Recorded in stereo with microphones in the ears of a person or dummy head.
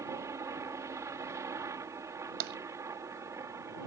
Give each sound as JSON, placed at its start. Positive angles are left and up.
{"t": 0.0, "sound": "a helicopter", "side_deg": -15}
{"t": 2.4, "sound": "tapping", "side_deg": -65}